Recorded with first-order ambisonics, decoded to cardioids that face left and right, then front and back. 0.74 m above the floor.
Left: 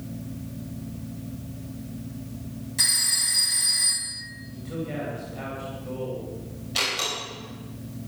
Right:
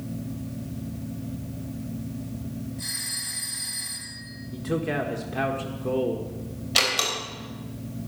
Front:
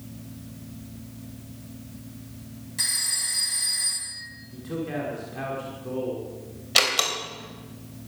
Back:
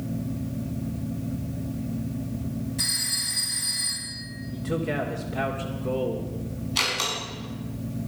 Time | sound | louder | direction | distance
2.8 | a phone ringing | left 10 dB, even | 65° left | 4.5 m
4.5 | a man speaking | right 7 dB, back 4 dB | 105° right | 1.8 m
6.8 | a door slam | right 3 dB, front 4 dB | 25° right | 3.5 m